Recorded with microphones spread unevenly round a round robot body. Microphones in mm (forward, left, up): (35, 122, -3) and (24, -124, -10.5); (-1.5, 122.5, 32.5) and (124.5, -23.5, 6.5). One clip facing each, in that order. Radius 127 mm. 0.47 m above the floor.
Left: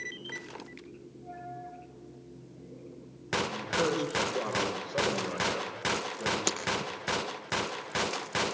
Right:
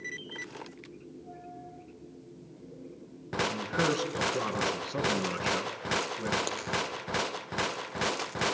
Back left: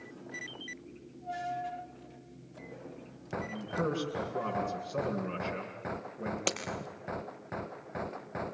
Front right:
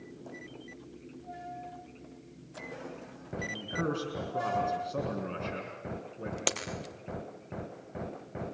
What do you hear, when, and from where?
3.5 s a man speaking: 130° right, 6 m
6.5 s breaking glass: 35° left, 5 m